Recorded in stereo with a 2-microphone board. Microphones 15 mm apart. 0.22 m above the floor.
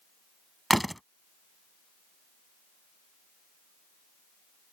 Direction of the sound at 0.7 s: 5° left (ahead or behind).